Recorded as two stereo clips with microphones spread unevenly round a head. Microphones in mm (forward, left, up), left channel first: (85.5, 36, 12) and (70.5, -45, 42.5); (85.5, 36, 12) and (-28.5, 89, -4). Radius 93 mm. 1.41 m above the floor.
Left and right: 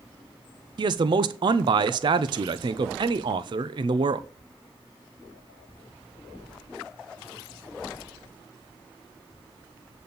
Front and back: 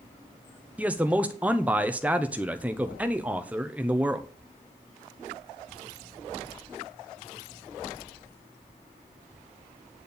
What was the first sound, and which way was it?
A man speaking, 140° right.